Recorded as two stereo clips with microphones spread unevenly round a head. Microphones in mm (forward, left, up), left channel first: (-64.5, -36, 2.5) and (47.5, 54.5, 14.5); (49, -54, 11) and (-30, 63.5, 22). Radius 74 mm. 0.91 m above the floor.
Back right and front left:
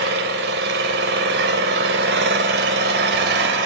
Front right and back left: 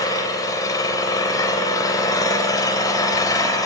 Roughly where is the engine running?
Ahead.